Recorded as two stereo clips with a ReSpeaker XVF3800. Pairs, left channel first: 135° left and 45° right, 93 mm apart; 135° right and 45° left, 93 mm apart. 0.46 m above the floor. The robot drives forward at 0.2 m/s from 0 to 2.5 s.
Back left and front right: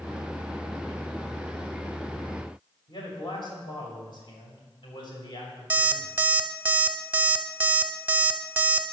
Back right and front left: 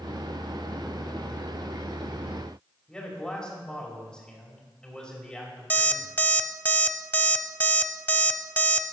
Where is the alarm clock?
90° right, 0.5 m.